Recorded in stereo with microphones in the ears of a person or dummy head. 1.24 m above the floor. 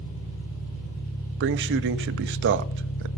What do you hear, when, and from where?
0.0 s an engine running: 70° left (ahead or behind), 7 m
1.4 s a man speaking: 60° right (ahead or behind), 0.7 m